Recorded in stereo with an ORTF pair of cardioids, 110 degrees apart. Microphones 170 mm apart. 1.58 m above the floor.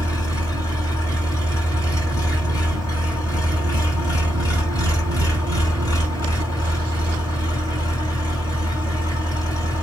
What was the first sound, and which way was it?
An engine running, 20° left.